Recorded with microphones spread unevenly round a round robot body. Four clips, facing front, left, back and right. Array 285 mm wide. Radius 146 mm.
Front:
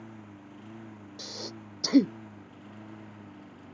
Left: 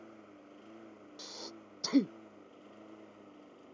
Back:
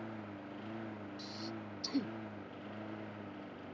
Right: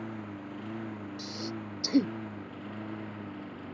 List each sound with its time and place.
0.0 s a lawn mower: 90° right; by 3.8 s 85° right
1.2 s breathing: 5° right